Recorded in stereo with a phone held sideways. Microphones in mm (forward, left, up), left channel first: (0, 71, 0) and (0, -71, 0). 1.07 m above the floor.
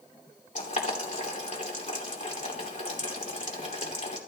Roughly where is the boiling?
Left.